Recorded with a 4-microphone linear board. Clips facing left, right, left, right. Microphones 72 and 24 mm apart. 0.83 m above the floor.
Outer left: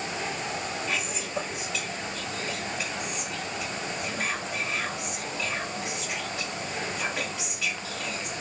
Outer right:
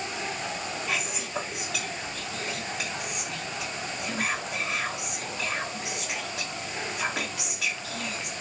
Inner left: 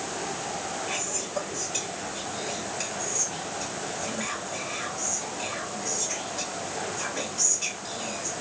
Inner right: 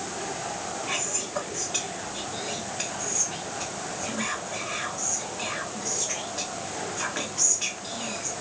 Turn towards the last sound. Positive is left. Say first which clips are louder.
# even, inner right 1 dB
turn(degrees=-70)  # may be behind; listen again after turning